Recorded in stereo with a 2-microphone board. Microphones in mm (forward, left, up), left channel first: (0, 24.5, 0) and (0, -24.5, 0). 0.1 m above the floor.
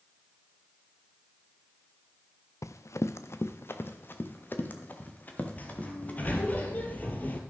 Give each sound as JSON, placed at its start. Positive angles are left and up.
{"t": 2.6, "sound": "running footsteps", "side_deg": 85, "distance_m": 0.7}
{"t": 5.6, "sound": "a sliding door", "side_deg": 35, "distance_m": 1.3}